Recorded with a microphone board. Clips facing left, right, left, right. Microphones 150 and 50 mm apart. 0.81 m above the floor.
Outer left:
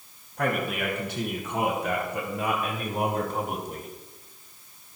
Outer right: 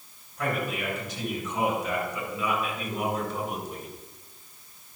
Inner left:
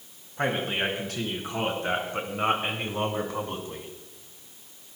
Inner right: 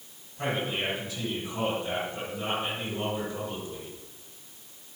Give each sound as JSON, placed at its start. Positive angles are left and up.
{"t": 0.4, "sound": "a man speaking", "side_deg": 65, "distance_m": 6.5}